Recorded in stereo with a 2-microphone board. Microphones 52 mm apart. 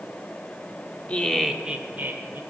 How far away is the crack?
No crack in this recording.